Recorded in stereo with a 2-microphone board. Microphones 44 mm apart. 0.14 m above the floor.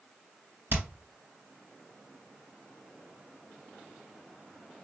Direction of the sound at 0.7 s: 55° right (ahead or behind).